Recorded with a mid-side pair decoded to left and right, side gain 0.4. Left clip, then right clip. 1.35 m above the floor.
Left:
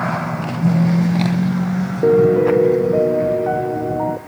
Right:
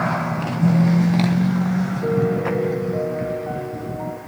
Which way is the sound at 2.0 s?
70° left.